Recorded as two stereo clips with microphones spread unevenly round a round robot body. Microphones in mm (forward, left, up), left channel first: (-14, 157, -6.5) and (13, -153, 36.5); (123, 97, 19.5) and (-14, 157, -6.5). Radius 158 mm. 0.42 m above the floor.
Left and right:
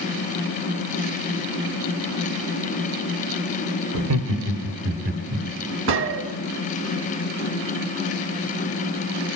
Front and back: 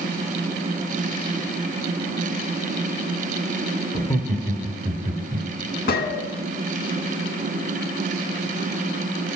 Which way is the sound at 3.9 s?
80° right.